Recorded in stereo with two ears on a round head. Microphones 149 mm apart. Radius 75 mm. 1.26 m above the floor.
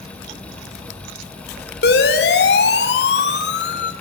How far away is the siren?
About 3 m.